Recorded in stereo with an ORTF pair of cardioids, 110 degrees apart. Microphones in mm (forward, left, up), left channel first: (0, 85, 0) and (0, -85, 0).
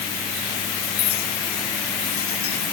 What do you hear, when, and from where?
1.0 s a clink: 65° left